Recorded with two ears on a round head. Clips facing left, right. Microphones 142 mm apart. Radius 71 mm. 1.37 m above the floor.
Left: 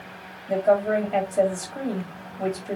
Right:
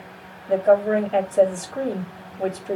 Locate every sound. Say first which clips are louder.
0.5 s a woman speaking: right 3 dB; 5° left (ahead or behind), 3 m